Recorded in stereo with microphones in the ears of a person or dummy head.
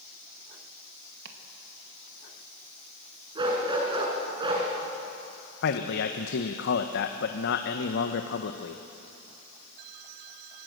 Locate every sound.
1.2 s chopping: 65° right (ahead or behind), 2 m
3.4 s a dog barking: 30° right (ahead or behind), 5 m
5.6 s a man speaking: 65° left (ahead or behind), 1.1 m